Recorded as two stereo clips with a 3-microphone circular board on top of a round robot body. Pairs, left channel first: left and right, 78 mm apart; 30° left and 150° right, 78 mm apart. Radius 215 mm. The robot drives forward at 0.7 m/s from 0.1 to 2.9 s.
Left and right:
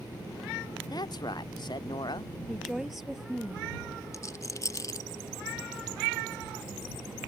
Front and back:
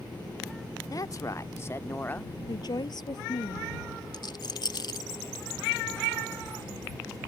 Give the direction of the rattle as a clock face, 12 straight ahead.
10 o'clock.